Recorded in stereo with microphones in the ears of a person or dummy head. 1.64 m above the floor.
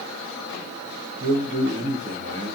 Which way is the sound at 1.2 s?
35° right (ahead or behind).